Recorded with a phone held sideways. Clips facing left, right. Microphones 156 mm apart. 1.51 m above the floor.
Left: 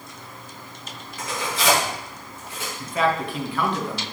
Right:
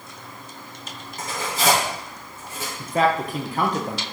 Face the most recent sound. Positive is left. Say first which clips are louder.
# right 2 dB
turn(degrees=-45)  # may be behind; listen again after turning